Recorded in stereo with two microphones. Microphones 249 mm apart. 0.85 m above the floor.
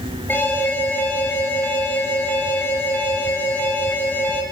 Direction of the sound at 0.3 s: 10° left (ahead or behind).